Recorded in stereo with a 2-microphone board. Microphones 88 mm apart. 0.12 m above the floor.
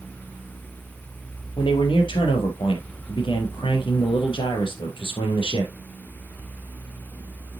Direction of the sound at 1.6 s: 70° left (ahead or behind).